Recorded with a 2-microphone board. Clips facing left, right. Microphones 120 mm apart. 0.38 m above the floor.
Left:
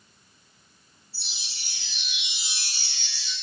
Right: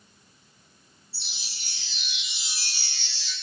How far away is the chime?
About 3 m.